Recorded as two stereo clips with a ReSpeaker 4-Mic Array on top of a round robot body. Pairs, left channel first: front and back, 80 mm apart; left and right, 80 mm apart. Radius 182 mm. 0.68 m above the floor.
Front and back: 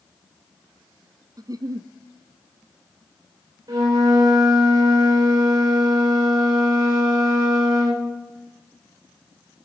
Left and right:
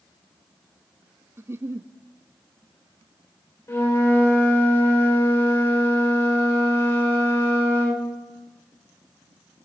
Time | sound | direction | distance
1.4 | a giggle | 145° right | 0.5 m
3.7 | a flute | 145° left | 3 m